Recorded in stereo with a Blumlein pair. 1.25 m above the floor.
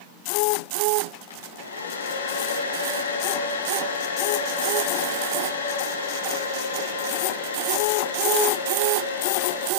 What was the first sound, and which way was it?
A hair dryer, 65° left.